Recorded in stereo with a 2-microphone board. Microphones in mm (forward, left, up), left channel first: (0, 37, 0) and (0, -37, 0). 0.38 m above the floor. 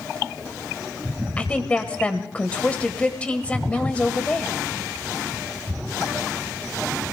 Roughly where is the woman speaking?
Centre.